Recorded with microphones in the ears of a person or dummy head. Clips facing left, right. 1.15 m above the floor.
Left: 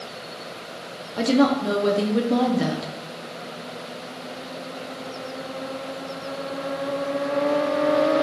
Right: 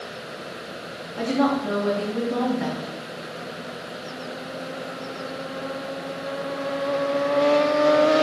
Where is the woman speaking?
45° left (ahead or behind), 0.7 m.